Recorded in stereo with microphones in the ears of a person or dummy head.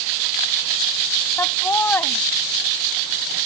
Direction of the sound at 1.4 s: 15° left (ahead or behind).